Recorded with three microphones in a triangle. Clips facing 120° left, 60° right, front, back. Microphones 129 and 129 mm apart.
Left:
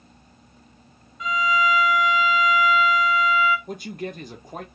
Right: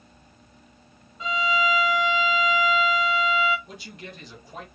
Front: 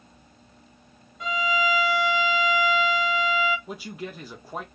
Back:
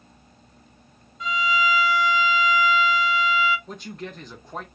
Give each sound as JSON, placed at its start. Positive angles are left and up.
{"t": 1.2, "sound": "a violin", "azimuth_deg": -10, "distance_m": 0.6}
{"t": 3.7, "sound": "a man speaking", "azimuth_deg": 80, "distance_m": 0.9}